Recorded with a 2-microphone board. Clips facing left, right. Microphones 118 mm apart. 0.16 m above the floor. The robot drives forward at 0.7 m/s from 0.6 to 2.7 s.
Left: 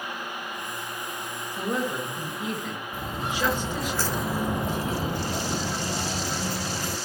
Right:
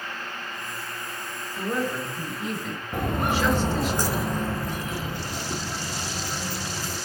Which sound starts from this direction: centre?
A woman speaking, at 1.6 s.